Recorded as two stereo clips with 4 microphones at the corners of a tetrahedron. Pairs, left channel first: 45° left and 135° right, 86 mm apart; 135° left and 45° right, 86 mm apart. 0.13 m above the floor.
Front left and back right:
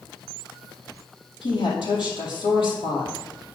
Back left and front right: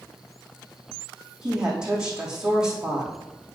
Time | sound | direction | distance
1.4 | a woman speaking | 35° left | 4 m